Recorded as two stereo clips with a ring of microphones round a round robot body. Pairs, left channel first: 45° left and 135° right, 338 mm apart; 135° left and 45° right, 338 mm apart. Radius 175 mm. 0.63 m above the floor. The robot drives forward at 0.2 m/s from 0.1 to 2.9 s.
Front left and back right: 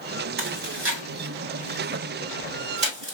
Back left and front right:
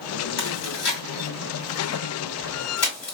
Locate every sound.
0.4 s chewing: 170° left, 2.5 m; by 3.1 s 175° left, 3 m